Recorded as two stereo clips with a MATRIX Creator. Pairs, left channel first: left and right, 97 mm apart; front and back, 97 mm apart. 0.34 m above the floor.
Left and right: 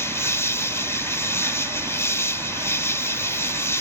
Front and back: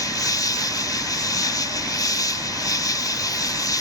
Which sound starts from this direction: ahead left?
An insect, at 0.0 s.